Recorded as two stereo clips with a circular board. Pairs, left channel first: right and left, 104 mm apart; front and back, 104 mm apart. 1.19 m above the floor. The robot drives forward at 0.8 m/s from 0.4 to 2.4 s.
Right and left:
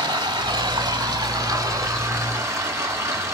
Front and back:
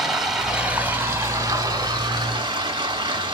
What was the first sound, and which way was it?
Running water, 95° left.